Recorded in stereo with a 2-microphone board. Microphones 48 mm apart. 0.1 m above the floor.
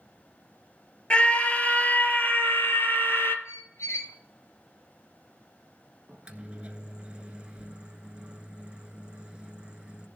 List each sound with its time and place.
1.1 s a scream: 25° left (ahead or behind), 1.7 m; by 3.4 s 50° left (ahead or behind), 2.5 m
3.5 s a squeak: 75° left (ahead or behind), 1.9 m
6.1 s a microwave: 20° right (ahead or behind), 1.2 m